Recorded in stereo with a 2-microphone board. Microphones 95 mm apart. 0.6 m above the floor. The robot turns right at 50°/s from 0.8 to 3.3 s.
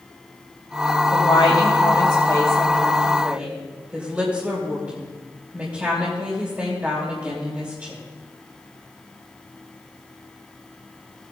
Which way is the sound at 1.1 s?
90° left.